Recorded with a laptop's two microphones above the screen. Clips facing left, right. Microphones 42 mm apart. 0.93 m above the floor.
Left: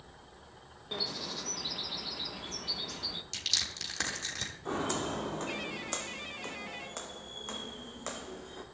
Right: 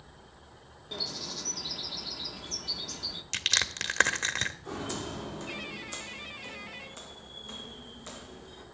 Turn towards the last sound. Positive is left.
turn(degrees=65)  # may be behind; listen again after turning